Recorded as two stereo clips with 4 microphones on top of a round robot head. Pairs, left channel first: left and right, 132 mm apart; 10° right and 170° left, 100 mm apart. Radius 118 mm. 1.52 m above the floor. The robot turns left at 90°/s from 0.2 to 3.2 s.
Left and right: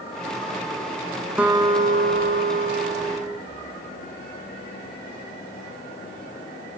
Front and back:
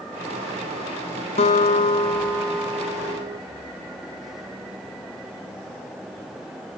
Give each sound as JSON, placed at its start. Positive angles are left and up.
{"t": 1.4, "sound": "a guitar", "azimuth_deg": -5, "distance_m": 1.3}